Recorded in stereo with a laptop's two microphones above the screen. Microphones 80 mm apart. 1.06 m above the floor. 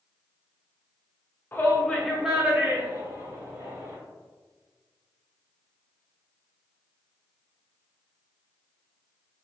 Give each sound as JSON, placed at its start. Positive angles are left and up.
{"t": 1.5, "sound": "a shout", "side_deg": 30, "distance_m": 0.7}